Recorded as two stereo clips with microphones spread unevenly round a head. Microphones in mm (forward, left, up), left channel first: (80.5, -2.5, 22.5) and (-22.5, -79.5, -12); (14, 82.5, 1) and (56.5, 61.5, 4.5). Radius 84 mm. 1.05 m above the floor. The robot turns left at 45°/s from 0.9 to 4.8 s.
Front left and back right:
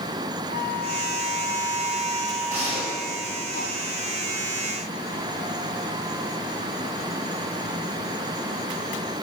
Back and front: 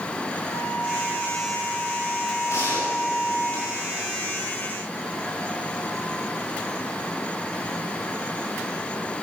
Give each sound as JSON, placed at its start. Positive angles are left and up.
{"t": 0.5, "sound": "a flute", "azimuth_deg": 180, "distance_m": 7.5}
{"t": 2.5, "sound": "a gunshot", "azimuth_deg": 140, "distance_m": 7.0}